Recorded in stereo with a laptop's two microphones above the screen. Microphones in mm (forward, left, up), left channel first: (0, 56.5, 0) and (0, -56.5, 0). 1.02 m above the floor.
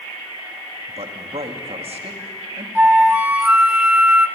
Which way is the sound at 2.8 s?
15° right (ahead or behind).